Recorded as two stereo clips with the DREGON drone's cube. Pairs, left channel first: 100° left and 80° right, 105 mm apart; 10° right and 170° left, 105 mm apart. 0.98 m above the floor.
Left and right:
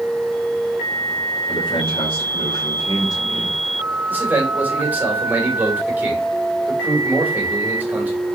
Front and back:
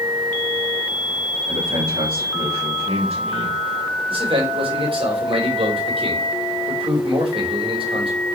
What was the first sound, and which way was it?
A man speaking, 125° left.